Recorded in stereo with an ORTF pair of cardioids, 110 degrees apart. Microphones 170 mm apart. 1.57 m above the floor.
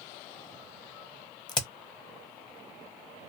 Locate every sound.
1.5 s a crack: 25° left, 0.9 m